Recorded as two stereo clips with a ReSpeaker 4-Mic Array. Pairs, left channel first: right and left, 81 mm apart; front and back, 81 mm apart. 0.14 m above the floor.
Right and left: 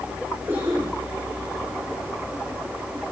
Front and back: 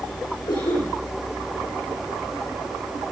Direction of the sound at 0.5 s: 25° left.